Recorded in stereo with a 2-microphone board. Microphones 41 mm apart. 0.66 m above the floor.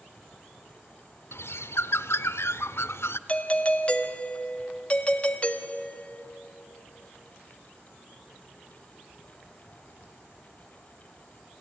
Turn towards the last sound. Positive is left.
turn(degrees=35)  # may be behind; listen again after turning